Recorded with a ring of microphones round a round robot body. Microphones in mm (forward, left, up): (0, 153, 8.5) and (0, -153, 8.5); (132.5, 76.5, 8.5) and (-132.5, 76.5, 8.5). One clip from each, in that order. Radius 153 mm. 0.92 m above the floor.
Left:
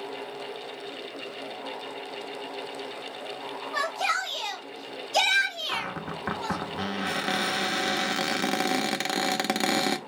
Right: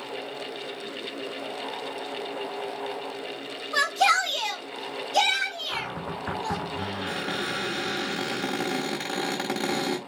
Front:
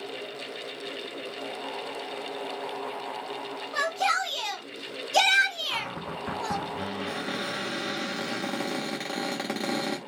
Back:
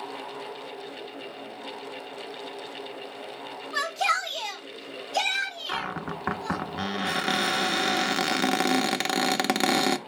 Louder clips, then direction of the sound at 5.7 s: Even, back 1 dB; 150° left.